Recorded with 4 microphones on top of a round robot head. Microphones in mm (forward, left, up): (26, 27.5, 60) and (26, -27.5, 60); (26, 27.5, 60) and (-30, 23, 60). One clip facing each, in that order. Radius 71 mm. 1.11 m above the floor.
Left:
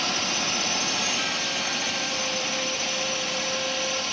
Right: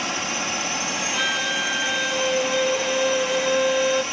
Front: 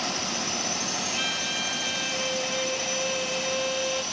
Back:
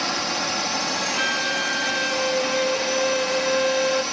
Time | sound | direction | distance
0.0 | a drone | 160° right | ?
1.1 | a violin | 120° right | ?